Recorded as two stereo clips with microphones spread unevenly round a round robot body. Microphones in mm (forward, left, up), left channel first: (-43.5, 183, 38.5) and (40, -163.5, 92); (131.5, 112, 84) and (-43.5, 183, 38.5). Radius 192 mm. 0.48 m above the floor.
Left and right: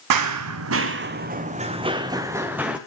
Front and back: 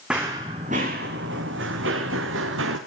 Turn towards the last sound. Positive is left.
turn(degrees=-160)